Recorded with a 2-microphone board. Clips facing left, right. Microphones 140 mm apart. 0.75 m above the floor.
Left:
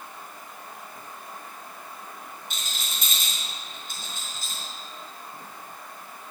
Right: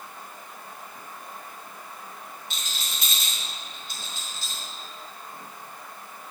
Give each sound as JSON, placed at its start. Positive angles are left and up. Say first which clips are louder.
{"t": 2.5, "sound": "a rattle", "louder": "even", "side_deg": 50, "distance_m": 4.5}